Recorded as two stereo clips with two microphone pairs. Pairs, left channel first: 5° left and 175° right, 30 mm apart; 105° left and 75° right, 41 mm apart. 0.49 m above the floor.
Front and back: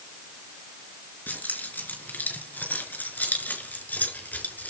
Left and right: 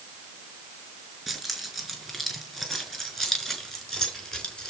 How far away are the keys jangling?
About 6 m.